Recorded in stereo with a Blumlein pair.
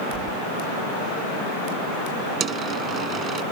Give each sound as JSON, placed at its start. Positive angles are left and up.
{"t": 0.1, "sound": "keys jangling", "azimuth_deg": -30}
{"t": 2.4, "sound": "a dropped coin", "azimuth_deg": -25}